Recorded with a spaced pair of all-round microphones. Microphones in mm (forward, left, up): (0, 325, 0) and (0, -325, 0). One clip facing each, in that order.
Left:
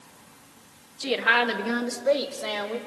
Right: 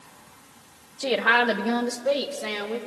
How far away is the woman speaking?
About 1.1 m.